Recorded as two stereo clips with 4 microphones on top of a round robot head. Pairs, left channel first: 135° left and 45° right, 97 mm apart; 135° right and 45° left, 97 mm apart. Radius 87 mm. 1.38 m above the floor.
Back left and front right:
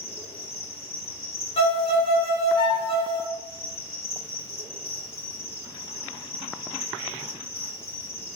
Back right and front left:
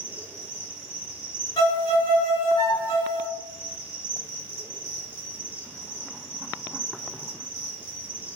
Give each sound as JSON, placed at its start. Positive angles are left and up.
{"t": 0.0, "sound": "an insect", "azimuth_deg": 75, "distance_m": 1.5}
{"t": 1.6, "sound": "a violin", "azimuth_deg": 175, "distance_m": 0.5}